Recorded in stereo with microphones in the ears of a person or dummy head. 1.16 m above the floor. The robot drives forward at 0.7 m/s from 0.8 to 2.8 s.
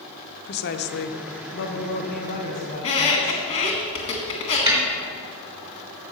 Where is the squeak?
25° left (ahead or behind), 1.5 m.